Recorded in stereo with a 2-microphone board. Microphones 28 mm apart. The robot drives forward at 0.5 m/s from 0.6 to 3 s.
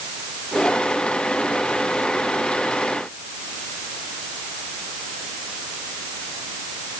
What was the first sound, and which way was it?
Only background noise.